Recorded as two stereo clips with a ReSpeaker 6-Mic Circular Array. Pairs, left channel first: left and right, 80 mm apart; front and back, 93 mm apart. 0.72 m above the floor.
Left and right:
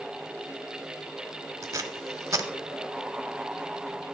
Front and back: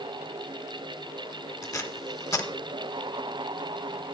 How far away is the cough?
No cough in this recording.